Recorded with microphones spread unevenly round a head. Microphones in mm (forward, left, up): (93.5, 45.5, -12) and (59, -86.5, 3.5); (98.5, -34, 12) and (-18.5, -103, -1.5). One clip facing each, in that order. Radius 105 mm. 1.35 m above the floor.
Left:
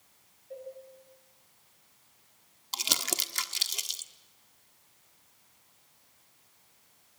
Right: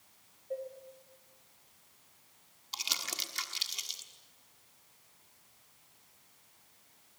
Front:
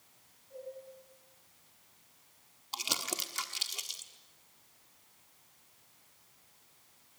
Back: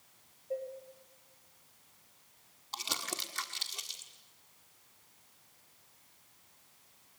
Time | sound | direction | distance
0.5 | dishes clattering | 165° right | 4.5 m
2.7 | crumpling | 100° left | 1.1 m